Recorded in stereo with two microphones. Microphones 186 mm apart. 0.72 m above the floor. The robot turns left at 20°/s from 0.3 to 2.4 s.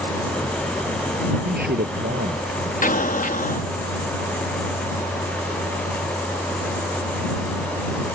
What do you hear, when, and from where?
1.4 s a man speaking: 55° right (ahead or behind); by 2.7 s 75° right (ahead or behind)
2.8 s an explosion: 45° left (ahead or behind)